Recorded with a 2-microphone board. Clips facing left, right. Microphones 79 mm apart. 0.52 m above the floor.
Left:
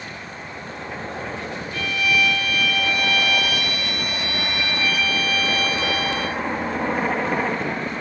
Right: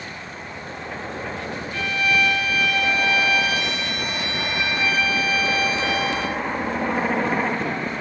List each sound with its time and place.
1.7 s a violin: 30° right (ahead or behind), 1.2 m